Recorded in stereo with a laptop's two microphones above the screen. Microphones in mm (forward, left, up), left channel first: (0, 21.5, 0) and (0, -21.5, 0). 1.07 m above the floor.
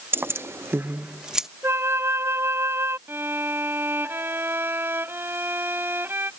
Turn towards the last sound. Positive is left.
turn(degrees=-60)  # may be behind; listen again after turning